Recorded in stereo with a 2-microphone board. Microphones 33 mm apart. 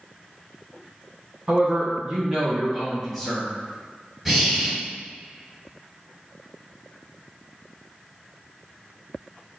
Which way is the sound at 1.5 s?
40° right (ahead or behind).